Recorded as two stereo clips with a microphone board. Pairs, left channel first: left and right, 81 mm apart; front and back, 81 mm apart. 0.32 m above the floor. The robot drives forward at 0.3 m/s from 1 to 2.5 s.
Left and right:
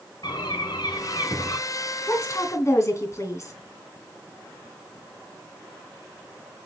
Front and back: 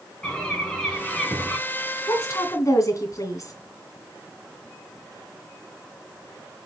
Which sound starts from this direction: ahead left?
A woman speaking, at 2.1 s.